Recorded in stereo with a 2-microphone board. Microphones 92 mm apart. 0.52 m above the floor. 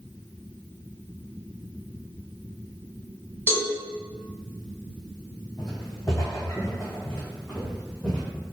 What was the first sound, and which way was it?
A cowbell, 25° left (ahead or behind).